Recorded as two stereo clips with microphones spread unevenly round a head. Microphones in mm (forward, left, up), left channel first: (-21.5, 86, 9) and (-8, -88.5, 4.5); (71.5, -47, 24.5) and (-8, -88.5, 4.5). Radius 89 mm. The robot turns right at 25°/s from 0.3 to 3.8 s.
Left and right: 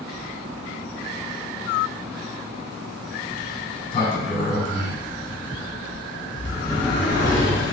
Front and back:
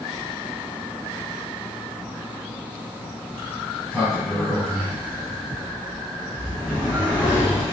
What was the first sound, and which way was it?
A sliding door, 85° left.